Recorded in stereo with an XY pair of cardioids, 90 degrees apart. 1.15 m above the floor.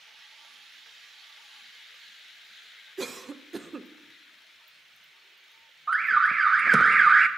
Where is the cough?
30° right, 0.5 m.